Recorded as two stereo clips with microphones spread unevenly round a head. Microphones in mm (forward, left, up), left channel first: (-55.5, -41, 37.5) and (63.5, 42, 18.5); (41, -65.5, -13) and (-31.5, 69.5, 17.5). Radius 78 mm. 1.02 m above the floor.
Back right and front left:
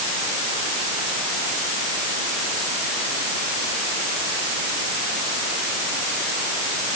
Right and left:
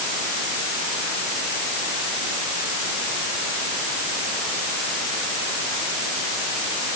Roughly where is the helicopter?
I don't hear a helicopter.